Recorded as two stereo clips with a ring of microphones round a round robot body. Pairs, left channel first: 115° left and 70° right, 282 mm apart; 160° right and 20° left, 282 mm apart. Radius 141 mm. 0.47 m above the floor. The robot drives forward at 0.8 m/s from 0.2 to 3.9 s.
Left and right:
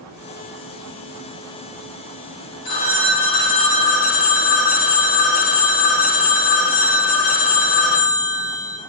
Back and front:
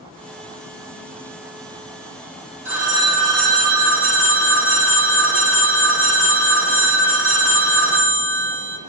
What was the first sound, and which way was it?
A phone ringing, 105° left.